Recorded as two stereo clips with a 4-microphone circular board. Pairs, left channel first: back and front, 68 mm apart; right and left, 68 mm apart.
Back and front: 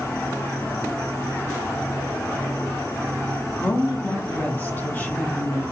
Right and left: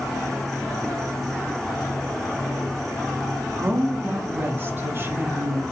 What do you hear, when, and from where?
0.0 s an insect: 165° right, 3 m
3.6 s a woman speaking: 130° left, 1.5 m